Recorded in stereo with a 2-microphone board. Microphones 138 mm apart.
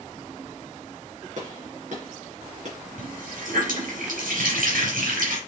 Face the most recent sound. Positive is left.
turn(degrees=-85)